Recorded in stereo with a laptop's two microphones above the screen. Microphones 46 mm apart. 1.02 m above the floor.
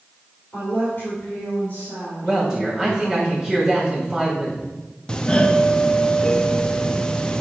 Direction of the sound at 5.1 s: 20° left (ahead or behind).